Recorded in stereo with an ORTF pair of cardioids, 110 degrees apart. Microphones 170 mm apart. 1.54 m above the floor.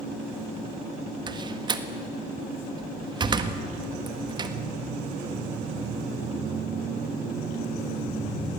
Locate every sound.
1.3 s a door slam: 25° right, 1.7 m